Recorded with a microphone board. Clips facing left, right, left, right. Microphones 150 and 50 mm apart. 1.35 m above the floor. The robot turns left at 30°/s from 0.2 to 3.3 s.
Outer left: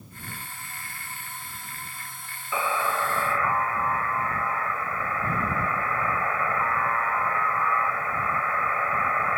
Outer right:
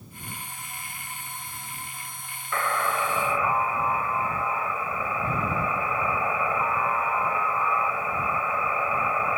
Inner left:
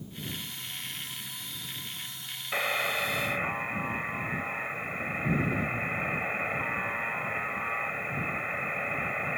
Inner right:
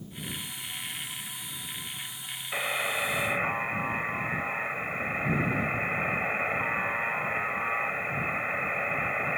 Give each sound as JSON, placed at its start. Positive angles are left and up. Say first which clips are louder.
{"t": 2.5, "sound": "a buzzer", "louder": "even, inner left 1 dB", "side_deg": 10}